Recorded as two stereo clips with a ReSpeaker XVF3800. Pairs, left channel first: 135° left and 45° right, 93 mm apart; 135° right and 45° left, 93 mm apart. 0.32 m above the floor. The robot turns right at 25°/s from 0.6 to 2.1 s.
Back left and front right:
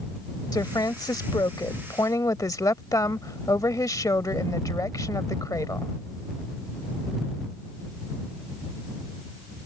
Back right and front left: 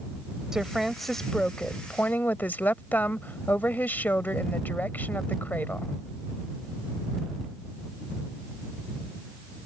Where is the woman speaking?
125° left; by 5.9 s 165° left.